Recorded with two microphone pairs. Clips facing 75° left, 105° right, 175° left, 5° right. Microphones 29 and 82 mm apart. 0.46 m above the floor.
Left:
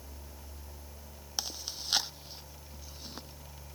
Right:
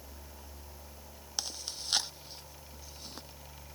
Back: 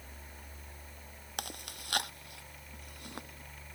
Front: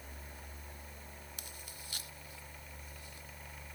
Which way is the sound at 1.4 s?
155° left.